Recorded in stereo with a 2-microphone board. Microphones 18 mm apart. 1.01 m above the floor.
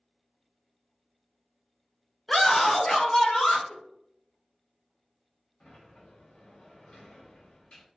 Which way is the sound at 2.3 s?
10° left (ahead or behind).